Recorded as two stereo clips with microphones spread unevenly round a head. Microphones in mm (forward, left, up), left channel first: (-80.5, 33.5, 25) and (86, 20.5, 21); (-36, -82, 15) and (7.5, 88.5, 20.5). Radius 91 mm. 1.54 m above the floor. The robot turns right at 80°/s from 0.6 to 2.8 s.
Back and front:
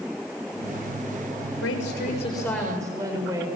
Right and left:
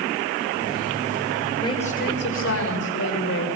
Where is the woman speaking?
175° right, 6.5 m; by 3.5 s 80° right, 6.5 m.